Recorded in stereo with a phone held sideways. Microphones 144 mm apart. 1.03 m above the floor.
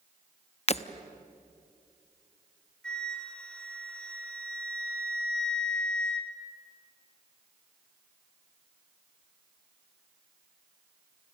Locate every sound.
0.7 s breaking glass: 45° left (ahead or behind), 0.7 m
2.8 s a flute: 5° left (ahead or behind), 3 m